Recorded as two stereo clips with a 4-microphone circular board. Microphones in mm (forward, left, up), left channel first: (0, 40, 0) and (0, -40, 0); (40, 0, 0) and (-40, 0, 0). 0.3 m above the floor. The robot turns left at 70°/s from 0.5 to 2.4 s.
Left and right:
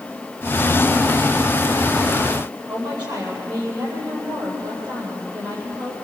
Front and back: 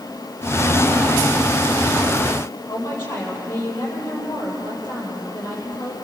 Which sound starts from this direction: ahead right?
A woman speaking, at 2.7 s.